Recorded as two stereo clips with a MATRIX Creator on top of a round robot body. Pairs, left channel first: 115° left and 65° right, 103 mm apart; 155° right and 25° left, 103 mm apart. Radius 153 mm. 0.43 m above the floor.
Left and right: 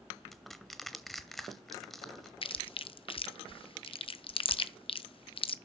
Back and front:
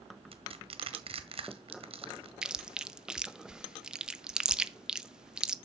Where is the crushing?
25° left, 1.1 m.